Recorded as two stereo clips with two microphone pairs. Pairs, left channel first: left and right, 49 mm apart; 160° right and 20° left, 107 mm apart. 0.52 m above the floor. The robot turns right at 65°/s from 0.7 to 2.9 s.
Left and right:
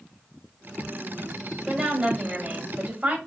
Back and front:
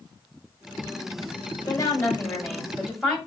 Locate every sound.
1.7 s a woman speaking: 145° right, 1.3 m; by 3.2 s 65° right, 1.3 m